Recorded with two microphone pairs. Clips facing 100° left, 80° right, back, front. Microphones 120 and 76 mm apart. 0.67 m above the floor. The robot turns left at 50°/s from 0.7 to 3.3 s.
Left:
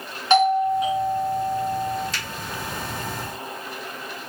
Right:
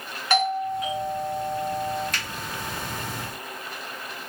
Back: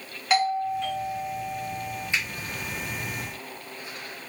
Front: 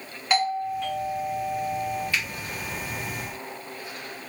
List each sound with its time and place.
0.3 s a doorbell: 90° left, 1.1 m; by 2.1 s 20° left, 1.1 m
2.1 s a finger snap: 110° right, 1.0 m; by 2.2 s 120° right, 1.0 m